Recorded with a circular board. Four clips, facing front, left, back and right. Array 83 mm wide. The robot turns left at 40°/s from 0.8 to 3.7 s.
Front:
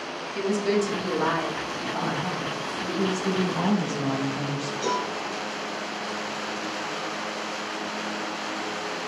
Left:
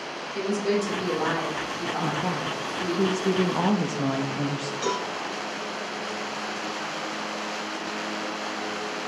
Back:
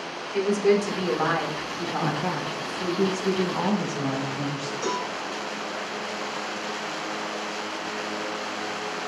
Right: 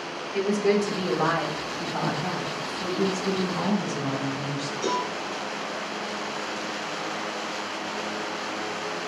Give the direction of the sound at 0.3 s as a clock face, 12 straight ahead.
5 o'clock.